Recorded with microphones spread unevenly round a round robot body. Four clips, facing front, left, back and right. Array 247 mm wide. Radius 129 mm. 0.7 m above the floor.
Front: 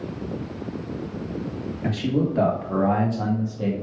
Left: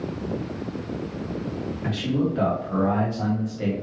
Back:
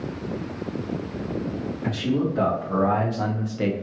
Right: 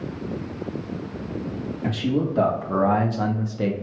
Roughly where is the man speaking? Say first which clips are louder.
Right 1 dB, front 1 dB; ahead right.